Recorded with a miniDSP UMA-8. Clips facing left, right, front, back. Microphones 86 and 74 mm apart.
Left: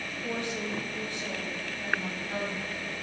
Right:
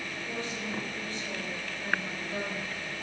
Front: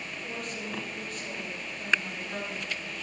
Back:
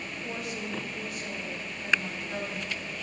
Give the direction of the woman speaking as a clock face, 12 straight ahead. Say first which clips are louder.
Left 4 dB, back 2 dB; 9 o'clock.